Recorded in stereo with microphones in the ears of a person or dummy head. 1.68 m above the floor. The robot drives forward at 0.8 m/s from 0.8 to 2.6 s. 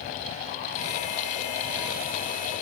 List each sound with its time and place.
Only background noise.